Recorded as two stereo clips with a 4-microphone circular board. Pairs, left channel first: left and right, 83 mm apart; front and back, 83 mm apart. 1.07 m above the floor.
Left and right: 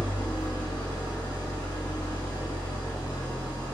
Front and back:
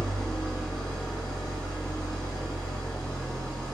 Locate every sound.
0.0 s an engine running: 75° left, 1.4 m